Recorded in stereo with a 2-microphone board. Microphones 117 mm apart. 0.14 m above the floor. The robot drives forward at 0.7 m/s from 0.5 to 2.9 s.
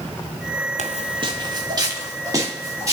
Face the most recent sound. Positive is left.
turn(degrees=-30)  # may be behind; listen again after turning